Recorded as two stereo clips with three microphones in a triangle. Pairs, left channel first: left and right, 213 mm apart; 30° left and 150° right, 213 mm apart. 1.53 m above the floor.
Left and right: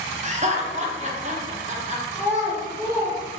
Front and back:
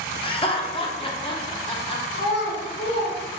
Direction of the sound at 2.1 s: 20° left.